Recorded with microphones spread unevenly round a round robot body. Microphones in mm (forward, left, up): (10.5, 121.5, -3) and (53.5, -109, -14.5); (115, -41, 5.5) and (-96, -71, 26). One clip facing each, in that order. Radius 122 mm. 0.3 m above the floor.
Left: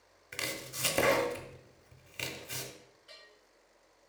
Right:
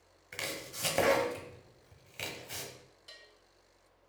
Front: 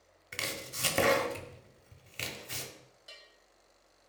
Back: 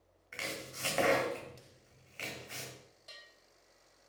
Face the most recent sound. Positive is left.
turn(degrees=-65)